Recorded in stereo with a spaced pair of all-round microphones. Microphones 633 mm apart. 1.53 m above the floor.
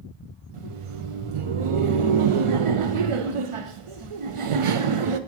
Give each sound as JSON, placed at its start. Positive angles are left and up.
{"t": 0.5, "sound": "laughter", "side_deg": -55, "distance_m": 0.5}